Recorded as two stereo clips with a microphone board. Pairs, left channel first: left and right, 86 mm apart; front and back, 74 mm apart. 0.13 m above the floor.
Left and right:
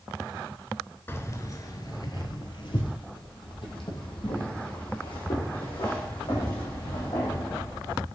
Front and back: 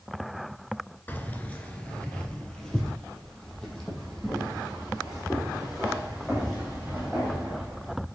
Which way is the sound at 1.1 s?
45° left.